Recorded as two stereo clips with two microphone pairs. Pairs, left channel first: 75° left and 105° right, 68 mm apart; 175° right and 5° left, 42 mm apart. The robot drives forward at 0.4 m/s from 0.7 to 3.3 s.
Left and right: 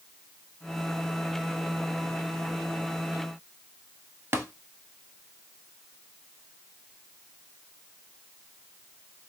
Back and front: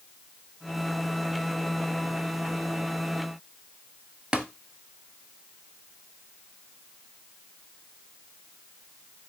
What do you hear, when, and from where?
4.3 s tapping: 65° right, 0.6 m